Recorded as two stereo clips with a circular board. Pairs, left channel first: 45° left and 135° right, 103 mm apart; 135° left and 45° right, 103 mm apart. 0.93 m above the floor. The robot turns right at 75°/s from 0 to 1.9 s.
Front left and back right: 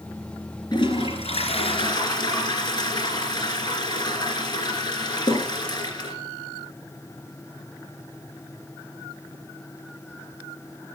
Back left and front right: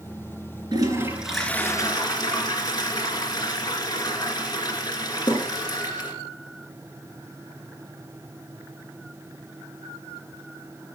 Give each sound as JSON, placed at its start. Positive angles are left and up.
{"t": 0.7, "sound": "a toilet flushing", "azimuth_deg": 0, "distance_m": 2.5}